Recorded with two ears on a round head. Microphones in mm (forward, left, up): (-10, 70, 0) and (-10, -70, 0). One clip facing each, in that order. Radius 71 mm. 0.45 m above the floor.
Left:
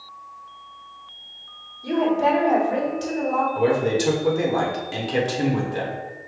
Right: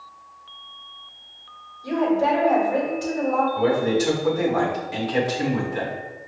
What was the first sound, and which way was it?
A woman speaking, 30° left (ahead or behind).